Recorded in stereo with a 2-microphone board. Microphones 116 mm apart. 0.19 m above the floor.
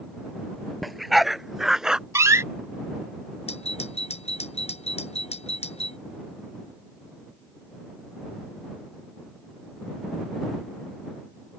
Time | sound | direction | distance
0.8 | a dog barking | centre (ahead or behind) | ?
2.1 | a door slam | 25° right (ahead or behind) | ?
3.5 | a doorbell | 65° left (ahead or behind) | ?